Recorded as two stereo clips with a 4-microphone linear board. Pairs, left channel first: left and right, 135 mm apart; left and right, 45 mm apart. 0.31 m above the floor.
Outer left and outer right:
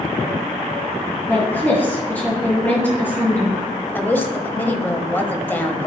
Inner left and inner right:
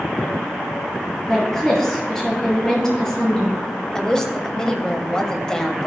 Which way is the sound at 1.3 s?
15° left (ahead or behind).